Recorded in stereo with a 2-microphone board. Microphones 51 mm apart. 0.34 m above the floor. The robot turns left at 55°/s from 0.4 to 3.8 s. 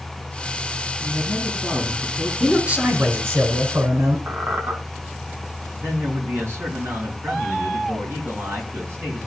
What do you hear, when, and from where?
1.0 s a man speaking: 40° left, 4 m; by 2.3 s 30° right, 4 m
2.4 s a man speaking: 10° right, 3.5 m; by 4.2 s 90° right, 3.5 m
4.3 s a squeak: 55° right (ahead or behind), 2.5 m
5.7 s a man speaking: 60° right (ahead or behind), 5 m